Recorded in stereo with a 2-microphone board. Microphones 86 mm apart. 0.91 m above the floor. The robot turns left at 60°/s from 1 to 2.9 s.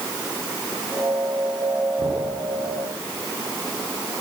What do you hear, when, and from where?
2.0 s knocking: 70° right (ahead or behind), 9.5 m; by 2.2 s 55° right (ahead or behind), 9.5 m